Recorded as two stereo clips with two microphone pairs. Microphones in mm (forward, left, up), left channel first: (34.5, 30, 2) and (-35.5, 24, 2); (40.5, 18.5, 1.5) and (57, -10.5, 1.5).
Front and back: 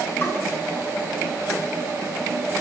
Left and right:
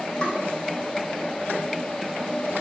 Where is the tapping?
60° left, 3 m.